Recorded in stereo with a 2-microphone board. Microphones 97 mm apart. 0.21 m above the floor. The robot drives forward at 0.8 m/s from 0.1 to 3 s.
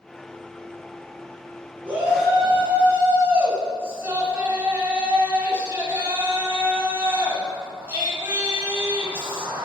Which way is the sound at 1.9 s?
20° right (ahead or behind).